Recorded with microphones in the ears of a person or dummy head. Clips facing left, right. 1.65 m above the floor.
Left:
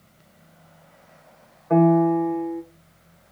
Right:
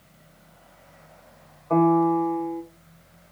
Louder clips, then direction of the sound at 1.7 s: Left 2 dB; 20° left (ahead or behind).